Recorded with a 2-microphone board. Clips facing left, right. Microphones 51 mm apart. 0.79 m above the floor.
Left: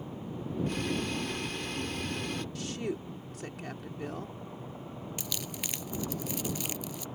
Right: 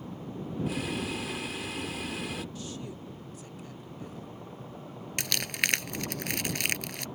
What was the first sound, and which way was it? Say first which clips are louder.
Boiling: even; 5° right (ahead or behind).